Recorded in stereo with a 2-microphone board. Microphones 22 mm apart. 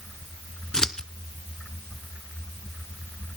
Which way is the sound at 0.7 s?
30° left (ahead or behind).